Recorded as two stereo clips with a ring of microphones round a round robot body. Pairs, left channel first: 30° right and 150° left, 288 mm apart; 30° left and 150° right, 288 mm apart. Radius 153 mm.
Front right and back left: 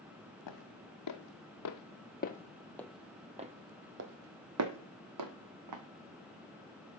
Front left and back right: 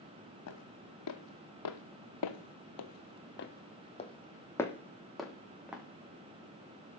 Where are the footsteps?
5° right, 1.6 m; by 5.8 s 125° left, 1.9 m.